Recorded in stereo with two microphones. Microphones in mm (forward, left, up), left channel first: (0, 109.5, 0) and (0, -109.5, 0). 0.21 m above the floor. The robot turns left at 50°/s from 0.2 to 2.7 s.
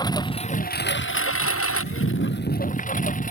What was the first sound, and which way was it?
A lawn mower, 160° left.